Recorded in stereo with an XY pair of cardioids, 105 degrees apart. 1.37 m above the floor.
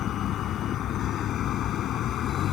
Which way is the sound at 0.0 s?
70° left.